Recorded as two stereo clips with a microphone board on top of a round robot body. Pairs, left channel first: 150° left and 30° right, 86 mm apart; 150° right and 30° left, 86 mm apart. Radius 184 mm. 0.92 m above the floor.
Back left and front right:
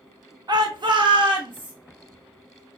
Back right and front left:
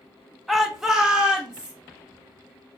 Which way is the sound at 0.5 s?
60° right.